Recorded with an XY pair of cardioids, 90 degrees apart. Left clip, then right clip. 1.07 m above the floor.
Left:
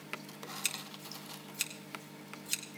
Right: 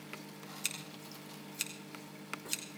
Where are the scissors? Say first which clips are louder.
Left 2 dB; 15° left, 2 m.